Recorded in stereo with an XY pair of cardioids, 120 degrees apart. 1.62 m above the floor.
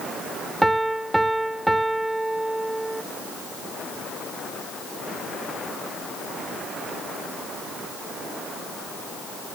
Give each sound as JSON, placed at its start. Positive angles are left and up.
{"t": 0.6, "sound": "a piano", "azimuth_deg": -10, "distance_m": 0.7}